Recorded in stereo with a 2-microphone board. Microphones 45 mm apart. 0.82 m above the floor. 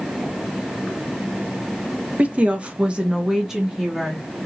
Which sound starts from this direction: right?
A woman speaking, at 2.2 s.